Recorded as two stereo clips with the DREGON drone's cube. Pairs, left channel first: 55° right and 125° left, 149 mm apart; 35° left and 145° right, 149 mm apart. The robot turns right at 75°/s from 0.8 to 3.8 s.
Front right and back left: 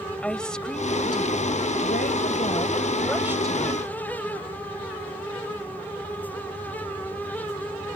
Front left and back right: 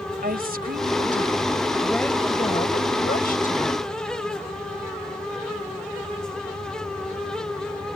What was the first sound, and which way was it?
A woman speaking, 140° right.